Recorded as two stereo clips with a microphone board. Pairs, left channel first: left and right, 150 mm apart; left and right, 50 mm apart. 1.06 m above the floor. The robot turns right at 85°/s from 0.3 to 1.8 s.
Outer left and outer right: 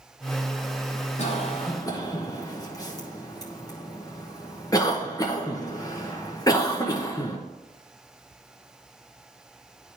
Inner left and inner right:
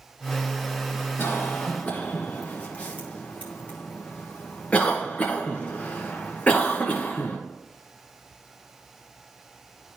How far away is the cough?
About 1.0 m.